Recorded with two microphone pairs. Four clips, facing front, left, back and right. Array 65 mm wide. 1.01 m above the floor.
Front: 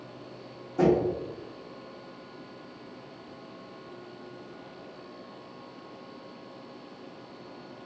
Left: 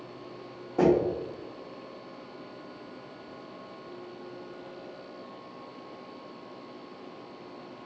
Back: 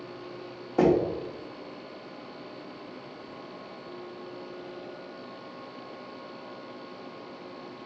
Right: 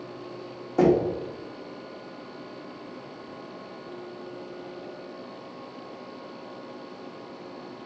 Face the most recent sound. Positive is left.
turn(degrees=-145)